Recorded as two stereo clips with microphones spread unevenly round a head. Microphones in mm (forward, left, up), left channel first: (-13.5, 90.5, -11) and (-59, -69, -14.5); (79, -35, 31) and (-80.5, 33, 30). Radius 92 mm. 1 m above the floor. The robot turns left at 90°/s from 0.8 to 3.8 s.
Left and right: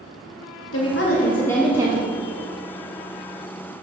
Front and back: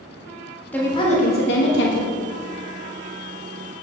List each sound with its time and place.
0.7 s a woman speaking: 60° left, 1.3 m; by 2.1 s 55° right, 1.3 m